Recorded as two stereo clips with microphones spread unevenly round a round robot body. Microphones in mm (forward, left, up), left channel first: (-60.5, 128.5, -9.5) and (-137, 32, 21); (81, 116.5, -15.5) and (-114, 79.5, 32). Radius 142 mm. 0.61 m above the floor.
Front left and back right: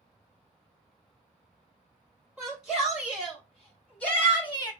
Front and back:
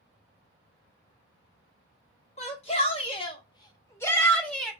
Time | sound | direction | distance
2.4 | a shout | 35° right | 1.3 m